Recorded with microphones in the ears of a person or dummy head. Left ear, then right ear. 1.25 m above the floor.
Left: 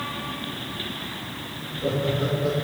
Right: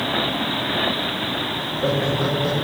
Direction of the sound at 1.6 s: 45° right (ahead or behind).